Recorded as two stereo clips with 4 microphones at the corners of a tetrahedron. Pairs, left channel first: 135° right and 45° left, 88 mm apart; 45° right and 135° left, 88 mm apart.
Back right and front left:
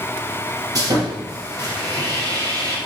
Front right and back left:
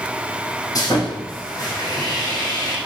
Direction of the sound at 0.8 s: Straight ahead.